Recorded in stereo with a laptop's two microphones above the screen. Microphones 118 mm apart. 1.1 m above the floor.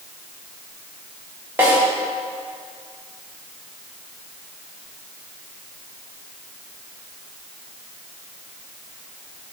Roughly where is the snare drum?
Centre.